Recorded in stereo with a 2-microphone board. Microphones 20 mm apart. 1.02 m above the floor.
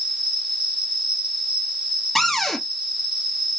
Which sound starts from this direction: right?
An insect, at 0.0 s.